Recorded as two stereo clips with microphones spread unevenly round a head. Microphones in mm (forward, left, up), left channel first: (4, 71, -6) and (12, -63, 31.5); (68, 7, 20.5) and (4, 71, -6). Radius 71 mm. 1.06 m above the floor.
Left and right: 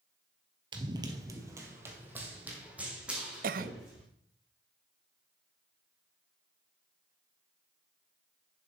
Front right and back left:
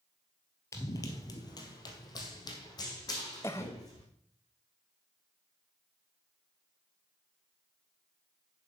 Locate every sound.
0.7 s running footsteps: 65° right, 1.4 m; by 4.0 s 5° right, 5 m
3.4 s a cough: 120° right, 0.5 m